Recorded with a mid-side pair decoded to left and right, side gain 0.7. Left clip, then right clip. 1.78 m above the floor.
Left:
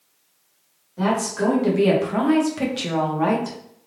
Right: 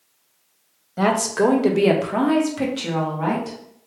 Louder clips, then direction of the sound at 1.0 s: Right 4 dB; 50° right.